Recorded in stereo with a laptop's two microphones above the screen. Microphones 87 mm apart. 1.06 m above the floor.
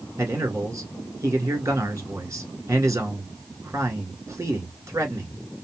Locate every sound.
0.2 s a man speaking: 30° right (ahead or behind), 1.9 m